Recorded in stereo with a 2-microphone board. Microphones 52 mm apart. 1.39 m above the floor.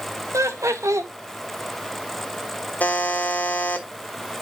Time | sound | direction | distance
0.3 | laughter | 75° right (ahead or behind) | 1.4 m
2.8 | a buzzer | 30° left (ahead or behind) | 1.2 m